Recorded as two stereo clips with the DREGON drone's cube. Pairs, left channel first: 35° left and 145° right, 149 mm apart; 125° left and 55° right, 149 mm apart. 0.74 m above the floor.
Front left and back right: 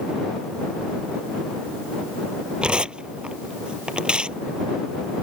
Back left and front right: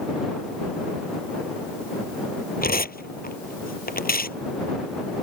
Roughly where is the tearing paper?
Behind left.